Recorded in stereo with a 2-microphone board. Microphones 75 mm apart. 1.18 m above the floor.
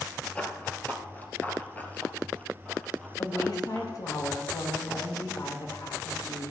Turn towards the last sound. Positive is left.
turn(degrees=60)  # may be behind; listen again after turning